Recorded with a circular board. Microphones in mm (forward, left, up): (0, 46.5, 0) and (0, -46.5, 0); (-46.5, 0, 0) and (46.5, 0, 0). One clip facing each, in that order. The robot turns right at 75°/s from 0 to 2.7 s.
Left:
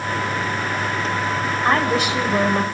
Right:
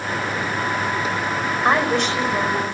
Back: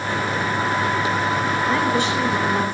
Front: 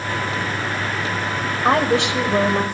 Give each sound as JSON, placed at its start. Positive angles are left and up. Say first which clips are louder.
{"t": 1.6, "sound": "a woman speaking", "louder": "even, front 6 dB", "azimuth_deg": -20, "distance_m": 5.0}